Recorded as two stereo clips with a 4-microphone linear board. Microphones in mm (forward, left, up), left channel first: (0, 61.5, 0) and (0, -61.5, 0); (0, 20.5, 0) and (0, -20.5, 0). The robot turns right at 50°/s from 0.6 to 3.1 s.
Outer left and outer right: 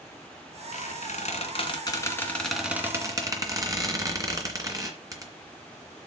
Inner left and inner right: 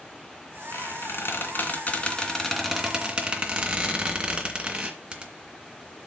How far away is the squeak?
About 2.5 m.